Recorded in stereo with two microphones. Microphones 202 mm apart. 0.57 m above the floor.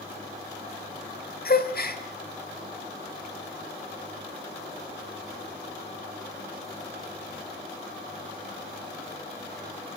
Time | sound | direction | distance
1.4 | a gasp | 55° left (ahead or behind) | 1.5 m